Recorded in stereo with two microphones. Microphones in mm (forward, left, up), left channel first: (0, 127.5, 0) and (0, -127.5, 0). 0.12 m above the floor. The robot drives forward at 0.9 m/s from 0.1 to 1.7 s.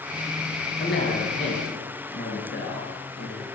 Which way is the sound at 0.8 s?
45° left (ahead or behind).